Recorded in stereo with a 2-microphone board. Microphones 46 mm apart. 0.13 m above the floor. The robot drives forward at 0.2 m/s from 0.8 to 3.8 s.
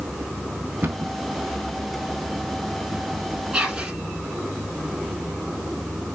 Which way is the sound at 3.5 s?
15° right (ahead or behind).